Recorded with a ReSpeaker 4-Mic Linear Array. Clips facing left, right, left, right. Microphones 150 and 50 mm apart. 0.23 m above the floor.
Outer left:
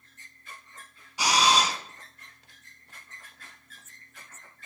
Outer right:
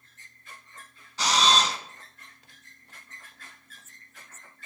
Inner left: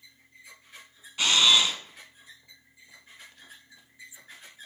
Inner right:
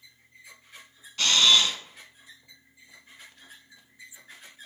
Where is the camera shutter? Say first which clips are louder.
Even, even; 10° left (ahead or behind), 0.8 m.